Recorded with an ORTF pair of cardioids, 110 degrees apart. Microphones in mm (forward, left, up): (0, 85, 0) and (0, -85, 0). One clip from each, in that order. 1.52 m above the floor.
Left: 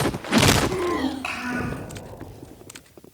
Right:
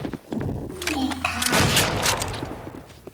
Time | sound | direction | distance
0.7 | a child speaking | 45° right | 6.5 m